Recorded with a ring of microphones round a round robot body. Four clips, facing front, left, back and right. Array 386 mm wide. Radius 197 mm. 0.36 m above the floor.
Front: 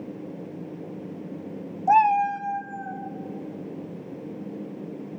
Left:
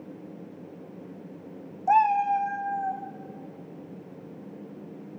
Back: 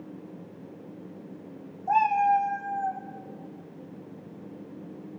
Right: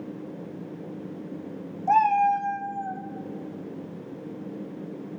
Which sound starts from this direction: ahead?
A cat meowing, at 1.9 s.